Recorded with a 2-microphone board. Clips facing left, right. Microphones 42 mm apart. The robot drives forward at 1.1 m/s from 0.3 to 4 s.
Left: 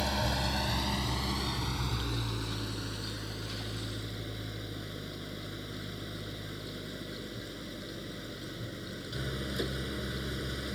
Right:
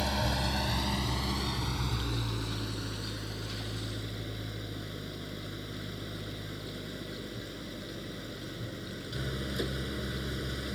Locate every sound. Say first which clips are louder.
0.0 s an engine running: even; centre (ahead or behind)